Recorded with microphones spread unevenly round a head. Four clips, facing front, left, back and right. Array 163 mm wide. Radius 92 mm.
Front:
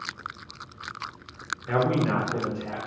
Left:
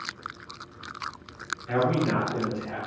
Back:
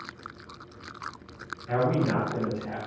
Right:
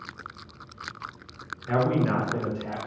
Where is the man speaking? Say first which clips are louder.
Right 1 dB, front 1 dB; 20° right, 0.9 m; by 2.8 s 70° right, 0.9 m.